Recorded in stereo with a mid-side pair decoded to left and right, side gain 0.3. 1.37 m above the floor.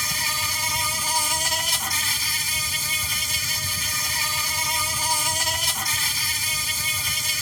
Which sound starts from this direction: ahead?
An insect, at 0.0 s.